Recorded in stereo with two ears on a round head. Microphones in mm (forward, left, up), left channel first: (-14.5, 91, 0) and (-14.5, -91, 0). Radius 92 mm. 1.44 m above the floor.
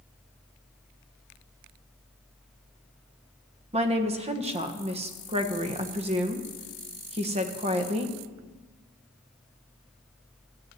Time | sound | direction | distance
3.7 | a woman speaking | 30° right (ahead or behind) | 1.4 m